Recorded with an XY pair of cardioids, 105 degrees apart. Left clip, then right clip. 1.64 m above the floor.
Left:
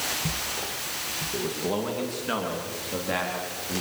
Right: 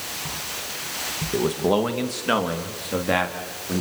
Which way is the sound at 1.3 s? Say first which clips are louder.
Right 10 dB; 55° right.